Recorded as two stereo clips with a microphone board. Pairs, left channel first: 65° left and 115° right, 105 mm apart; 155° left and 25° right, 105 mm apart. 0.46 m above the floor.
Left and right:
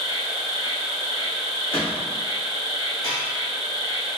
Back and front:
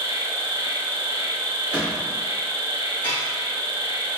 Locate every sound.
0.0 s an insect: 25° left, 0.7 m
1.7 s a gunshot: 55° left, 1.3 m
3.0 s dishes clattering: 90° left, 1.5 m